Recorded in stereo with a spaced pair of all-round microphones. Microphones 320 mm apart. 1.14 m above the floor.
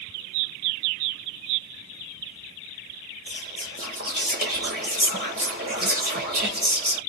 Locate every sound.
3.3 s whispering: 30° right (ahead or behind), 0.8 m